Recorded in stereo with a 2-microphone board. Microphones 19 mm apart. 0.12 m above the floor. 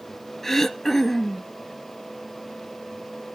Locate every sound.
0.4 s throat clearing: 20° left (ahead or behind), 0.5 m